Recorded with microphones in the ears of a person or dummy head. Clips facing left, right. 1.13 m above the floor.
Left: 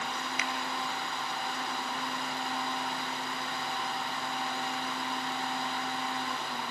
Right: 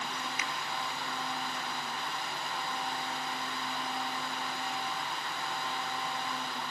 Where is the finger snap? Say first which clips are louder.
Left 3 dB; 60° left (ahead or behind), 0.9 m.